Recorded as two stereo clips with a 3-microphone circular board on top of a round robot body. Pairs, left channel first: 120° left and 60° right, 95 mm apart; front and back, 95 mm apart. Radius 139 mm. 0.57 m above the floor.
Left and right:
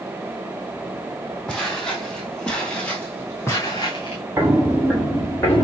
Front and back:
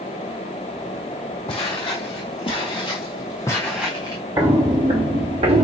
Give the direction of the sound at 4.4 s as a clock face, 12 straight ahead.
4 o'clock.